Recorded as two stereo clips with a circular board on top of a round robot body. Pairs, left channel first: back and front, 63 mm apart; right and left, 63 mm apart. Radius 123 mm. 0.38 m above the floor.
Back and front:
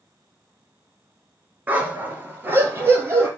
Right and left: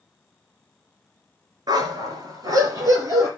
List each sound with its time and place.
1.7 s a dog barking: 70° left, 2.5 m; by 3.3 s 55° left, 4 m